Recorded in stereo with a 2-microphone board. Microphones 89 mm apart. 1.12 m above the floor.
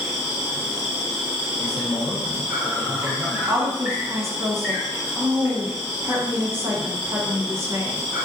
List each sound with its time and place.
0.0 s an insect: 15° right (ahead or behind), 1.0 m
1.6 s a man speaking: 40° right (ahead or behind), 1.2 m
3.5 s a woman speaking: 25° right (ahead or behind), 0.9 m